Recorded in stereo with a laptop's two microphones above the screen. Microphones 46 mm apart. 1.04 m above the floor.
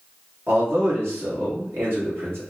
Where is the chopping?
I don't hear chopping.